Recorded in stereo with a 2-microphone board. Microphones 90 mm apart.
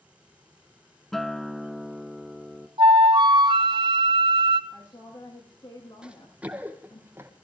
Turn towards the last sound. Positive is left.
turn(degrees=-25)  # may be behind; listen again after turning